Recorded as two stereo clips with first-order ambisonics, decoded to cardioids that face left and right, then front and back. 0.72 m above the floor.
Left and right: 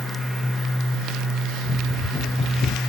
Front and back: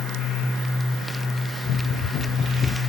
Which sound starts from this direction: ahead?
Running footsteps, at 1.6 s.